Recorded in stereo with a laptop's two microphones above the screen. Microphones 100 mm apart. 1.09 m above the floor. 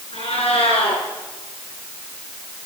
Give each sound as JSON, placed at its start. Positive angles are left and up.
{"t": 0.1, "sound": "a cat meowing", "side_deg": 85, "distance_m": 5.0}